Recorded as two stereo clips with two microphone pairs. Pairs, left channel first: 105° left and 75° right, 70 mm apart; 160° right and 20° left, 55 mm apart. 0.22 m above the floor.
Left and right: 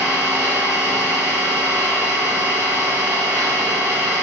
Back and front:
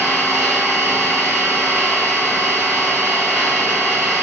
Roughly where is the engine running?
Ahead right.